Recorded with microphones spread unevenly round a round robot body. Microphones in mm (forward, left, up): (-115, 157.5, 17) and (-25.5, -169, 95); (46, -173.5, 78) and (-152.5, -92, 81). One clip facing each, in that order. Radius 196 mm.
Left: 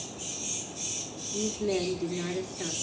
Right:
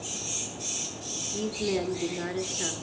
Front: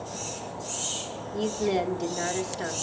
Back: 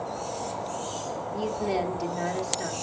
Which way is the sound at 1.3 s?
45° left.